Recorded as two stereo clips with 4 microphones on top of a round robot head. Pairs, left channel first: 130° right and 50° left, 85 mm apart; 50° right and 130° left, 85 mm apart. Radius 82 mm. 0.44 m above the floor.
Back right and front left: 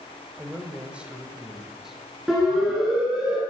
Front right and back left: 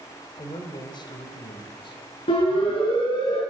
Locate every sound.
0.4 s a man speaking: 20° right, 2.5 m; by 2.0 s 35° right, 3 m
2.3 s a siren: 30° right, 8.5 m; by 3.4 s 25° right, 8 m